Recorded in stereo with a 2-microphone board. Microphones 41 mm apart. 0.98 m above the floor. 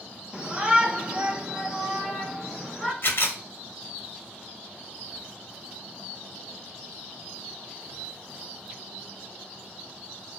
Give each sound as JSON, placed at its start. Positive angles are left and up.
{"t": 0.3, "sound": "a shout", "side_deg": -25, "distance_m": 1.2}
{"t": 3.0, "sound": "a camera shutter", "side_deg": 55, "distance_m": 1.0}